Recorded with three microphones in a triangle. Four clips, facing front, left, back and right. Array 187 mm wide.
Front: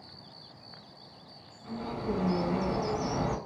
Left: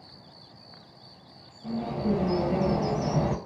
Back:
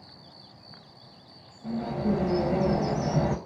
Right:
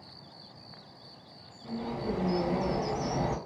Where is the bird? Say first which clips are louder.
Left 5 dB, back 6 dB; 135° left, 0.6 m.